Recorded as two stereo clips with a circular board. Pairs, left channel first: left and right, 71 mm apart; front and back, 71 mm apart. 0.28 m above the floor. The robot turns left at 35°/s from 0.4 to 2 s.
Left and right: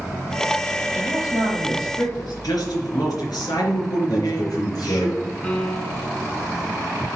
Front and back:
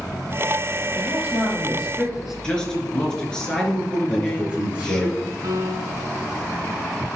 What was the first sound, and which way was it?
A man speaking, 130° left.